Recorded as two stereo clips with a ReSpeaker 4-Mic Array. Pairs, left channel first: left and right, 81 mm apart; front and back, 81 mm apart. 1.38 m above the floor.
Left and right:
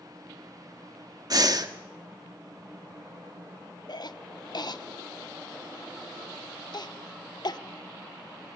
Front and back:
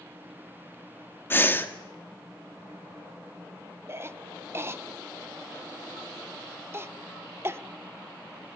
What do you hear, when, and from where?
1.3 s breathing: 60° right, 1.4 m
3.9 s a cough: 120° left, 1.1 m